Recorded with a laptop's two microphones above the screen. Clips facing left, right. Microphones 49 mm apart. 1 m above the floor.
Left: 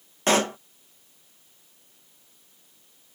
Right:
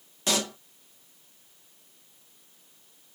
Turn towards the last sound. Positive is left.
turn(degrees=40)  # may be behind; listen again after turning